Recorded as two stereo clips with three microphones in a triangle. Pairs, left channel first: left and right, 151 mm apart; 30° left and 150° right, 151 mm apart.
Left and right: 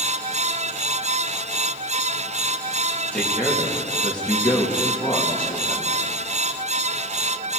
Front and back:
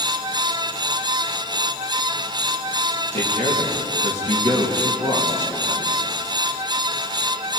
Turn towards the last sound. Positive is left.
turn(degrees=170)